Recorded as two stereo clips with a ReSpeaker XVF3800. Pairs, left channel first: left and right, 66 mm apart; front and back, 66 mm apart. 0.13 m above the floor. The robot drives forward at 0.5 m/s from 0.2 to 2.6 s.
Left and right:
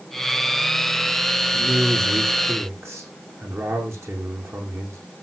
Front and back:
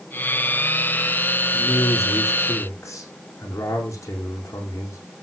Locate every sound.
1.5 s a man speaking: 40° right, 6.5 m